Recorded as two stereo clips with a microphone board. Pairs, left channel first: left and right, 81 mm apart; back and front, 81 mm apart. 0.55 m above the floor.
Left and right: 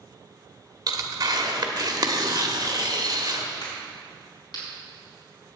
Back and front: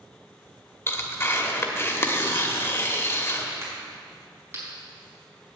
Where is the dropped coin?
I don't hear a dropped coin.